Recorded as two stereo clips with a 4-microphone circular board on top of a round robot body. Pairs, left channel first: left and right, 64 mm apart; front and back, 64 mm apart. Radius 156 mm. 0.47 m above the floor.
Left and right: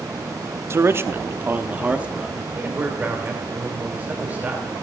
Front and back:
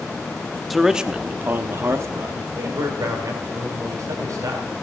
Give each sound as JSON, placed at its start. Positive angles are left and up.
{"t": 0.7, "sound": "a man speaking", "azimuth_deg": -90, "distance_m": 1.0}
{"t": 2.5, "sound": "a man speaking", "azimuth_deg": -155, "distance_m": 2.5}